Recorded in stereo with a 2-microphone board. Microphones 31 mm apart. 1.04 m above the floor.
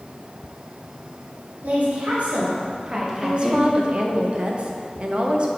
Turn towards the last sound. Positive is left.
turn(degrees=-35)  # may be behind; listen again after turning